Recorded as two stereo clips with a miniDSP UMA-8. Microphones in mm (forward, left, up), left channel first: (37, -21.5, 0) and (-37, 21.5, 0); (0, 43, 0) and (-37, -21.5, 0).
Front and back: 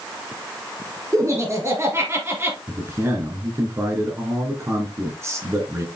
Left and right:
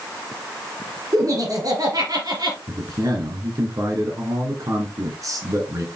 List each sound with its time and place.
1.1 s laughter: 160° right, 4 m; by 2.6 s 150° right, 4 m
2.7 s a man speaking: 155° right, 2.5 m